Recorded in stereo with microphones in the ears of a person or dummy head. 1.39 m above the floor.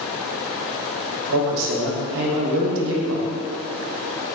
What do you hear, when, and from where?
1.3 s a man speaking: 70° right (ahead or behind), 0.6 m